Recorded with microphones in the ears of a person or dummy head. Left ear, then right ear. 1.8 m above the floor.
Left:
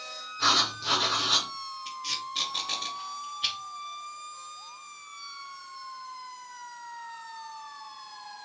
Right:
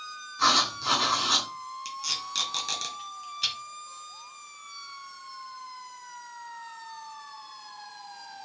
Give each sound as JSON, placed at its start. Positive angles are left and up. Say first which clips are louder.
{"t": 0.4, "sound": "writing", "louder": "right 1 dB", "side_deg": -50, "distance_m": 2.5}
{"t": 1.9, "sound": "tape being pulled", "louder": "right 2 dB", "side_deg": -60, "distance_m": 2.0}